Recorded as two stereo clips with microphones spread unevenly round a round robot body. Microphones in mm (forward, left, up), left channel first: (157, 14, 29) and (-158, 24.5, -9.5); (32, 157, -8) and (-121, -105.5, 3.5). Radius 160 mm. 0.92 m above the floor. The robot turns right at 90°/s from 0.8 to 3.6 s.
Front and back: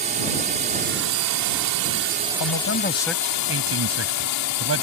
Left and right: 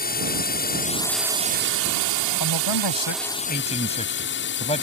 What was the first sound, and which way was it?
A drone, 115° left.